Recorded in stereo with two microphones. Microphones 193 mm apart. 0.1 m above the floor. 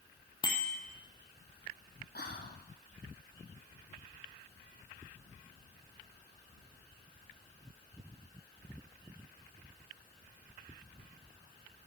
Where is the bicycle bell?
25° left (ahead or behind), 2 m.